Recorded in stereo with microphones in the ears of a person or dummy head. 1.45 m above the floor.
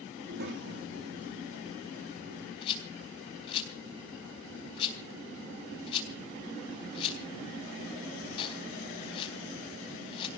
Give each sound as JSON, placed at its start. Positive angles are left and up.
{"t": 0.2, "sound": "a child speaking", "side_deg": -50, "distance_m": 2.5}
{"t": 2.6, "sound": "a rattle", "side_deg": 30, "distance_m": 4.0}